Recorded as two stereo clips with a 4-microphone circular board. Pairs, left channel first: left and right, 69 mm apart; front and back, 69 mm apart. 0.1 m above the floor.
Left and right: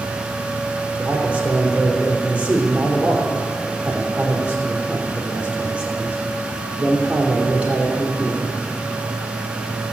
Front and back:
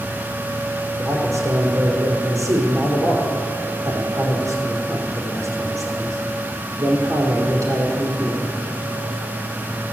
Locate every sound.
1.0 s a man speaking: 160° right, 3 m